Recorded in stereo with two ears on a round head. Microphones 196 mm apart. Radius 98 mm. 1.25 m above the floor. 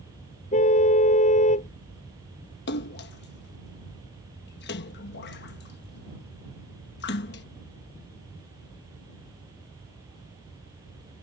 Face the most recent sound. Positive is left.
turn(degrees=50)  # may be behind; listen again after turning